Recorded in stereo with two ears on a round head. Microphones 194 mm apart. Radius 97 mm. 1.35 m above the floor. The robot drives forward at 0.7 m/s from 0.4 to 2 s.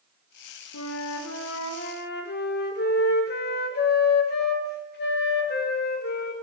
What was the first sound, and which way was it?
A flute, 85° left.